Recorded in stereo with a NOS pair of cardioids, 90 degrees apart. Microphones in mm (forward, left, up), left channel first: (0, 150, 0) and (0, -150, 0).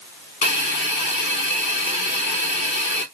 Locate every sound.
0.4 s a hiss: 40° left, 1.5 m